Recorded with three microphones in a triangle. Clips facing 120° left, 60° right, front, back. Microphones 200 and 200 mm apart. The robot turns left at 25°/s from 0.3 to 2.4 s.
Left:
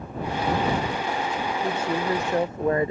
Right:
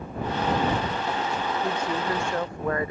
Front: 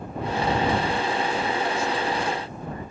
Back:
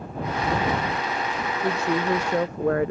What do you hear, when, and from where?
1.6 s a woman speaking: 155° right; by 2.9 s 175° right